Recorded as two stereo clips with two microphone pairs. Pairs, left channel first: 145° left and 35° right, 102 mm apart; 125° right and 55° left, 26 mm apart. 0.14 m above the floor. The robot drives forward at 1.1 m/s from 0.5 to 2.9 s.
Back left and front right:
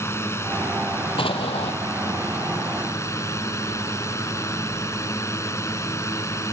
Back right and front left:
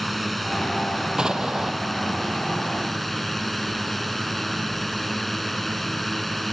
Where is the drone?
155° left.